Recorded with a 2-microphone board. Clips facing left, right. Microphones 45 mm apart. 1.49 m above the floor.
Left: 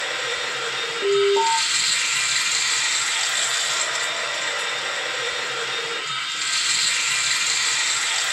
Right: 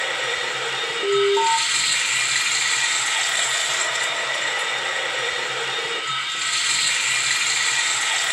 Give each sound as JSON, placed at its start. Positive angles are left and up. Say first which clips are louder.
{"t": 0.0, "sound": "running water", "louder": "right 2 dB", "side_deg": -20, "distance_m": 1.6}
{"t": 1.0, "sound": "an alarm", "louder": "even", "side_deg": 35, "distance_m": 1.5}